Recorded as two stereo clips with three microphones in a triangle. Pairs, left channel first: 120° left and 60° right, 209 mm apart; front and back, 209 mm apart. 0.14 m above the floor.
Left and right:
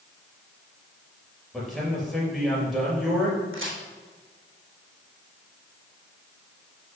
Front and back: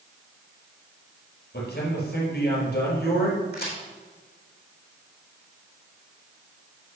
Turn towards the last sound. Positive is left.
turn(degrees=-45)